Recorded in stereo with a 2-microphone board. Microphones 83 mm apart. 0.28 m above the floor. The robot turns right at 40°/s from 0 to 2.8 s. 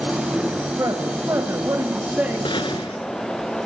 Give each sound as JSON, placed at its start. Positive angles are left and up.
{"t": 0.8, "sound": "a man speaking", "azimuth_deg": -95, "distance_m": 1.3}
{"t": 2.5, "sound": "a gunshot", "side_deg": 70, "distance_m": 0.7}